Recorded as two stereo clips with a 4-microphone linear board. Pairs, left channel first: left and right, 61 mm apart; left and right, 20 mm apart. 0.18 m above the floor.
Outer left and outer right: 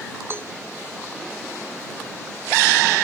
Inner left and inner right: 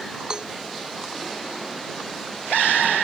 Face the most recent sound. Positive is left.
turn(degrees=-40)  # may be behind; listen again after turning